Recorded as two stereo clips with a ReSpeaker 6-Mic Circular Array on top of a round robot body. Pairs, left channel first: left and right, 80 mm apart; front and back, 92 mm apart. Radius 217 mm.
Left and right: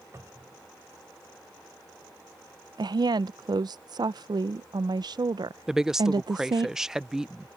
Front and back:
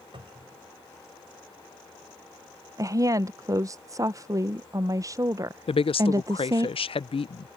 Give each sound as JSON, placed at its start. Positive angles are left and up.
{"t": 0.1, "sound": "a cupboard door", "azimuth_deg": -150}
{"t": 2.8, "sound": "a woman speaking", "azimuth_deg": -125}
{"t": 5.7, "sound": "a woman speaking", "azimuth_deg": -5}